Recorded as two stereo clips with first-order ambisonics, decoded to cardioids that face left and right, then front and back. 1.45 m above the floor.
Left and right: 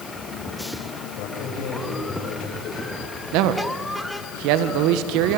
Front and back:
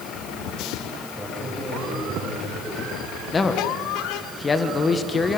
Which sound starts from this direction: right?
A man speaking, at 3.3 s.